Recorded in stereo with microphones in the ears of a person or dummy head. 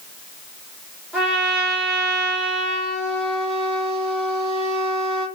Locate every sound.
1.1 s a trumpet: 10° right (ahead or behind), 2 m